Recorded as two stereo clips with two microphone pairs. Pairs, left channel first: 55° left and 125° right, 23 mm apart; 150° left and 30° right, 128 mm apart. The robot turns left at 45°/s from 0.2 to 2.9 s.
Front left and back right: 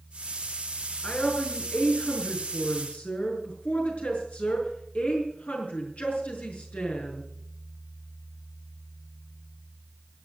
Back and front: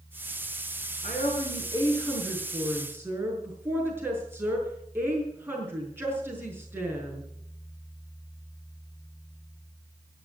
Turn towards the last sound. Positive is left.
turn(degrees=40)